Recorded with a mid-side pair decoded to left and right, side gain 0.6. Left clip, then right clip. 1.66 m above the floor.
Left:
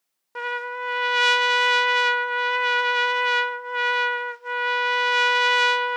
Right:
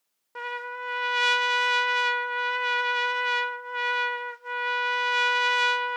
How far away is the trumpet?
About 0.5 m.